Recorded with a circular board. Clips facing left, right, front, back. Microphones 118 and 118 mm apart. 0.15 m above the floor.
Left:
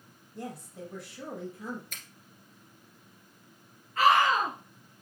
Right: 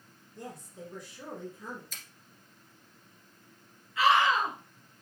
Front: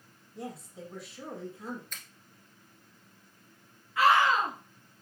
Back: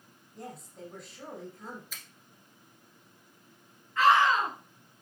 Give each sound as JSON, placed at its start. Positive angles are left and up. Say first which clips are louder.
{"t": 0.3, "sound": "a woman speaking", "louder": "left 3 dB, front 3 dB", "azimuth_deg": 85, "distance_m": 4.0}
{"t": 1.9, "sound": "a finger snap", "louder": "left 2 dB, front 1 dB", "azimuth_deg": 95, "distance_m": 1.6}
{"t": 4.0, "sound": "a scream", "louder": "left 1 dB, back 1 dB", "azimuth_deg": 80, "distance_m": 1.7}